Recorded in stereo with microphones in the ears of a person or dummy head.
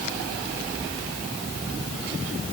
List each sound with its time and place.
Only background noise.